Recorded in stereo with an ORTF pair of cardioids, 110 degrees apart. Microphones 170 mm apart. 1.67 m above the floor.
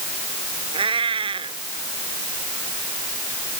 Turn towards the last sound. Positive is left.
turn(degrees=-30)